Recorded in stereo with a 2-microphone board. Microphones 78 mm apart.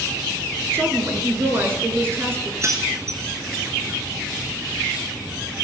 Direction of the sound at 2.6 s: 40° right (ahead or behind).